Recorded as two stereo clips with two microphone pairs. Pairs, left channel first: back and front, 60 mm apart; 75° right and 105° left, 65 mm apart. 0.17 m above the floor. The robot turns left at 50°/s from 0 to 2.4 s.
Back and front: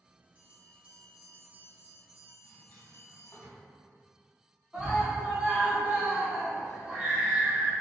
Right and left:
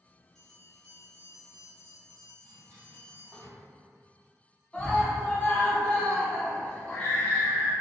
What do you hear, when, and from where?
0.3 s a bell: straight ahead, 0.9 m; by 3.4 s 100° right, 0.9 m
2.4 s a drawer: 140° left, 1.2 m
4.7 s a scream: 55° right, 1.0 m